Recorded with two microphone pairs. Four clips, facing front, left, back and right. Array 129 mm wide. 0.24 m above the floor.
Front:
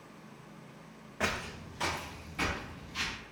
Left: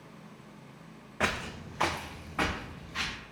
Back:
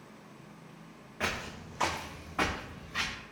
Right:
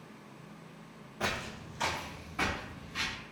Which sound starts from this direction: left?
Footsteps, at 1.2 s.